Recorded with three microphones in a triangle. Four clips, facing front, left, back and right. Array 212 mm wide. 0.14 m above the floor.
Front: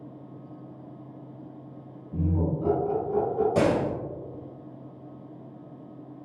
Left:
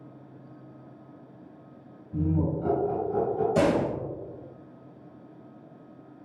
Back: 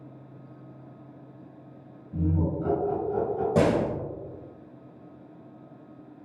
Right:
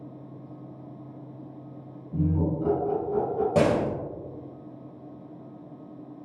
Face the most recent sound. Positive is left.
turn(degrees=-130)